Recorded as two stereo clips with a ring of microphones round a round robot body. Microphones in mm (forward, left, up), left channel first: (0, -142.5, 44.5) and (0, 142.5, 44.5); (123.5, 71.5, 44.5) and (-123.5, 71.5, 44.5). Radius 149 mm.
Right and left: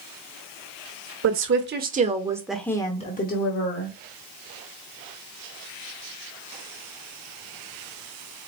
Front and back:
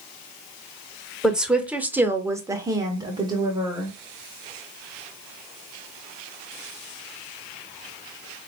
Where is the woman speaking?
90° left, 1.1 m; by 3.9 s 110° right, 1.2 m.